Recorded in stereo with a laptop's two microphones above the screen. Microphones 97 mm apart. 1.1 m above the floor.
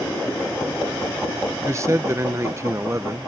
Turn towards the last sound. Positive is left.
turn(degrees=-30)  # may be behind; listen again after turning